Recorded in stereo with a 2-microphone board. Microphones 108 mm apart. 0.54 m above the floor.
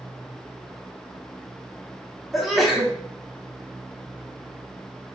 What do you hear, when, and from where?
2.3 s a sneeze: centre (ahead or behind), 1.1 m